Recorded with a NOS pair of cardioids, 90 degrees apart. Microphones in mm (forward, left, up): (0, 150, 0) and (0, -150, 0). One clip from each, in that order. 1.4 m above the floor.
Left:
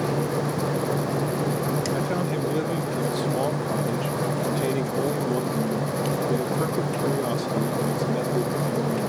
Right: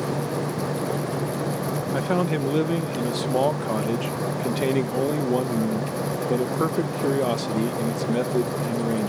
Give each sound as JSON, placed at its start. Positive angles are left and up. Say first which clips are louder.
{"t": 0.0, "sound": "a fan", "louder": "left 2 dB", "azimuth_deg": 10}
{"t": 1.9, "sound": "a man speaking", "louder": "right 2 dB", "azimuth_deg": -35}